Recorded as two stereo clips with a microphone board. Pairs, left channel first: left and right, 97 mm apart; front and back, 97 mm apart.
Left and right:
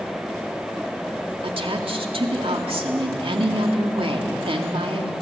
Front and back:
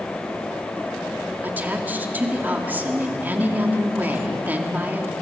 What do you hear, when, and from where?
1.4 s a woman speaking: 110° right, 2.5 m